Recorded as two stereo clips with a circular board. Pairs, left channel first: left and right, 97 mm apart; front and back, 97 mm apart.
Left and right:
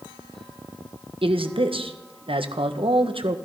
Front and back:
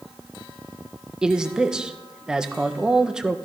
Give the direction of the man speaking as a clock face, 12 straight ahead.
3 o'clock.